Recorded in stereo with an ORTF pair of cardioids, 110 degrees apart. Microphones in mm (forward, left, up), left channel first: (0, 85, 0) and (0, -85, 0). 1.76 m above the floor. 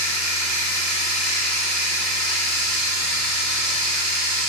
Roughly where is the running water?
Ahead.